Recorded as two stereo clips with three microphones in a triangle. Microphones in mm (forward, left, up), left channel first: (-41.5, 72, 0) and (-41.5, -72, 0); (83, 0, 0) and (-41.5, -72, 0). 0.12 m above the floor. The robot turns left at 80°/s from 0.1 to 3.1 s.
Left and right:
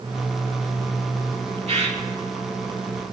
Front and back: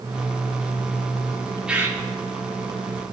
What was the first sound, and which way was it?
A bird, 65° right.